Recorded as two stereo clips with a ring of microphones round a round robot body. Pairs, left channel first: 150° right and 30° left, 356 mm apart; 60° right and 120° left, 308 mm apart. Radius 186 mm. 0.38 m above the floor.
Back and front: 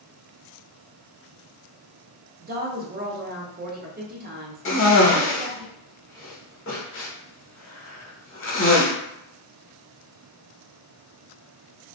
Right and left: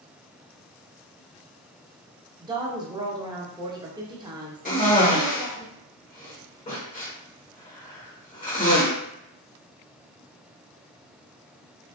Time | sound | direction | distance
2.4 | a woman speaking | 60° left | 0.9 m
4.7 | a cough | 115° right | 1.2 m